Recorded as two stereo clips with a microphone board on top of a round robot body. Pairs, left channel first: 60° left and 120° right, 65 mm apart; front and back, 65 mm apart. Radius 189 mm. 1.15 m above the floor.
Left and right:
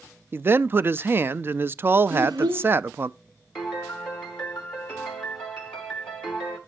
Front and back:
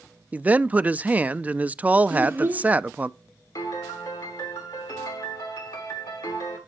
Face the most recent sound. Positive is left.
turn(degrees=-15)